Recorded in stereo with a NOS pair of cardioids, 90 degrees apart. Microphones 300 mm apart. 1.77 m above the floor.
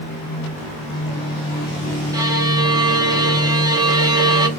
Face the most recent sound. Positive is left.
turn(degrees=-10)